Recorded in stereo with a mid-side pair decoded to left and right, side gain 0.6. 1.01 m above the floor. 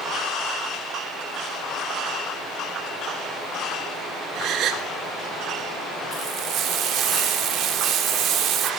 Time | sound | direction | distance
4.3 | a gasp | 55° right | 2.5 m
6.1 | frying | 55° right | 3 m